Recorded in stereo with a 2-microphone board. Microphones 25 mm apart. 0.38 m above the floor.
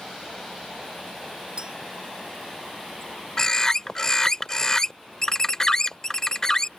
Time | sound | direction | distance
1.6 | a clink | 35° right (ahead or behind) | ?
3.4 | a bird | 25° left (ahead or behind) | ?